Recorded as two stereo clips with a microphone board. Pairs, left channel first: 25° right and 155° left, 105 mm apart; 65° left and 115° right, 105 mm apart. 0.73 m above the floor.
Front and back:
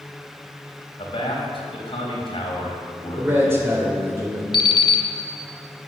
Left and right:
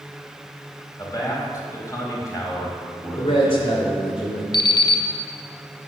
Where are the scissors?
I don't hear scissors.